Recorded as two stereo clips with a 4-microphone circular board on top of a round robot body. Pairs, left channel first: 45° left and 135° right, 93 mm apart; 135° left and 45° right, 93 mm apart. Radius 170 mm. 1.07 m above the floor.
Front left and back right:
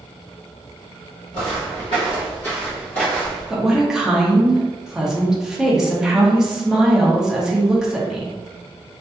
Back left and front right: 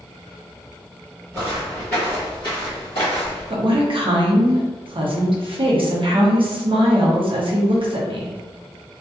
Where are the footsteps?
10° left, 1.1 m; by 3.5 s 120° left, 1.6 m.